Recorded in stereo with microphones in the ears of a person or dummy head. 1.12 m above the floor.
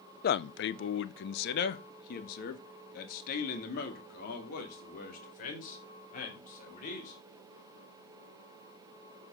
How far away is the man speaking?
About 0.5 m.